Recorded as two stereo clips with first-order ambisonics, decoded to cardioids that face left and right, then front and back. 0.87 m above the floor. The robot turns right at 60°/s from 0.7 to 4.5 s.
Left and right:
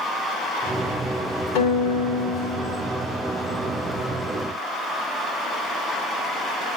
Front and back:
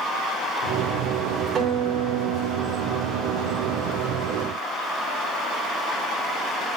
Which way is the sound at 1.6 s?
115° left.